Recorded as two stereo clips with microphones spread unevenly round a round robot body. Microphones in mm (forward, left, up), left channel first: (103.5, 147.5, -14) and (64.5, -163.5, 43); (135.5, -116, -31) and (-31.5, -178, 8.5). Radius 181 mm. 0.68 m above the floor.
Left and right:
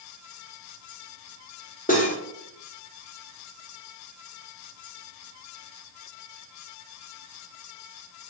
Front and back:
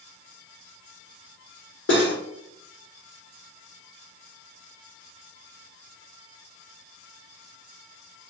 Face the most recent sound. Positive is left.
turn(degrees=20)